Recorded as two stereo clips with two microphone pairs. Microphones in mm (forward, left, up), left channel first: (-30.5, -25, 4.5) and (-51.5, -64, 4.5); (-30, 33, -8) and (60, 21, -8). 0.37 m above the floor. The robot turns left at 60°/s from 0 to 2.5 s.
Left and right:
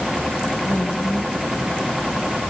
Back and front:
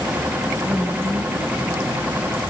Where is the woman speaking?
65° left, 3.5 m; by 2.1 s 20° right, 3.5 m.